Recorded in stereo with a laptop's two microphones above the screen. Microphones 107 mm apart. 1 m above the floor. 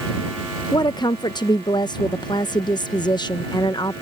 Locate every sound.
0.7 s a woman speaking: 45° left (ahead or behind)